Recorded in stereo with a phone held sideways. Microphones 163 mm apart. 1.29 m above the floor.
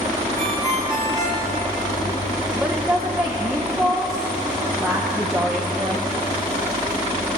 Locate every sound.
0.4 s a ringtone: 20° left (ahead or behind), 3 m
2.5 s a woman speaking: 5° right (ahead or behind), 0.6 m